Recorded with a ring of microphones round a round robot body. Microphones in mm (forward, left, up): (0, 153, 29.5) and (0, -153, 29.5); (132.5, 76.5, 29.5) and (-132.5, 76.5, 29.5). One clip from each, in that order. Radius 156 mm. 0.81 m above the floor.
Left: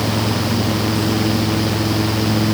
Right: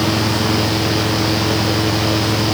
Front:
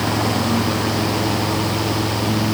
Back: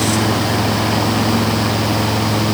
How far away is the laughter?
No laughter in this recording.